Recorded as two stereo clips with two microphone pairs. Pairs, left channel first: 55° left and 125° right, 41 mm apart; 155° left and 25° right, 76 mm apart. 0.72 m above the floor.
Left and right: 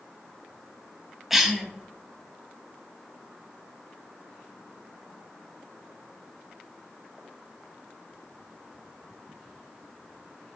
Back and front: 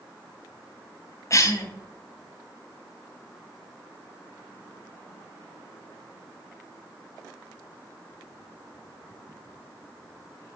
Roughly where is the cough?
Behind left.